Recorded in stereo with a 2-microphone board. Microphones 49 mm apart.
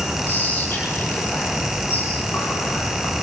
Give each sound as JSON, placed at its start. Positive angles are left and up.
{"t": 0.3, "sound": "whispering", "side_deg": 50, "distance_m": 4.0}